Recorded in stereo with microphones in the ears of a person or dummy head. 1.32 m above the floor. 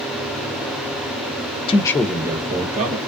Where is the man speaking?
30° left (ahead or behind), 0.7 m; by 3.0 s 45° right (ahead or behind), 1.1 m.